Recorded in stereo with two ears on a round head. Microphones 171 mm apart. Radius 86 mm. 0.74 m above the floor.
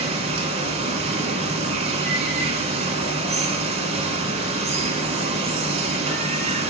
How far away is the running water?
About 0.8 m.